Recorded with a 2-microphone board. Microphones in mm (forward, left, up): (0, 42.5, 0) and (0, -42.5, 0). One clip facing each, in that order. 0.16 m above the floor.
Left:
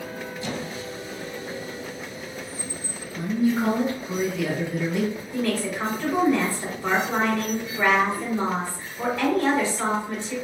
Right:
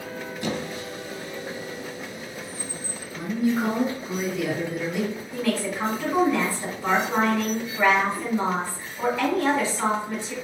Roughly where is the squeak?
Right.